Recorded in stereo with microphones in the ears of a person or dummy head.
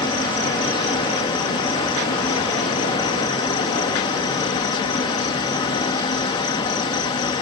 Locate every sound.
0.0 s an insect: 30° left (ahead or behind)